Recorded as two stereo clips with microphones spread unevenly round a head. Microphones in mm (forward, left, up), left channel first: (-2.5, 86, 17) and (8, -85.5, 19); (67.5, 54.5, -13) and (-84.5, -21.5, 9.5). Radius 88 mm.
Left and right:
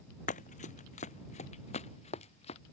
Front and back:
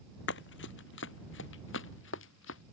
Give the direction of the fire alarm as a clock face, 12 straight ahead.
I don't hear a fire alarm.